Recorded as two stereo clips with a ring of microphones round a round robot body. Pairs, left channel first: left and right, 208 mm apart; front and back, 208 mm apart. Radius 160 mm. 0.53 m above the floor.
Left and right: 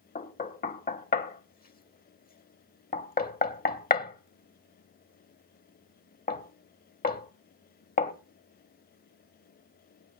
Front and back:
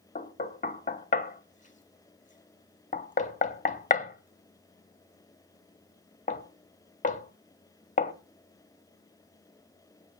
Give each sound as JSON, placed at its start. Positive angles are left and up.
{"t": 0.1, "sound": "knocking", "azimuth_deg": 50, "distance_m": 1.6}